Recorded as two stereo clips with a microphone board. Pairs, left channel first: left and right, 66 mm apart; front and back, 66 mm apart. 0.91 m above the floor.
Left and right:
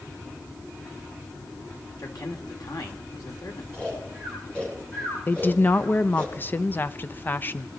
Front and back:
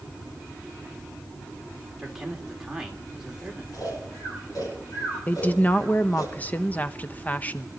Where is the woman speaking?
45° left, 0.6 m.